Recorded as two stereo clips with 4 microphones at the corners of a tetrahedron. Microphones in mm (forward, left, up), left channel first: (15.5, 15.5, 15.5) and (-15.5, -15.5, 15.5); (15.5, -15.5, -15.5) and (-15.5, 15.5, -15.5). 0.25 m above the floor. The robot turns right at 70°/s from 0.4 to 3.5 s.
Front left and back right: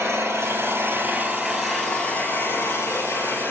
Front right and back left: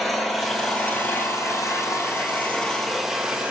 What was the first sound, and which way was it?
An engine running, 140° right.